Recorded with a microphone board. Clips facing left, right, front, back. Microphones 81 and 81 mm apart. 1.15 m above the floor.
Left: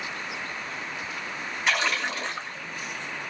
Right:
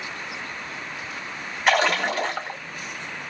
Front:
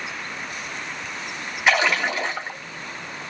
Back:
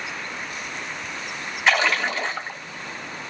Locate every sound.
1.7 s a splash: 80° right, 1.3 m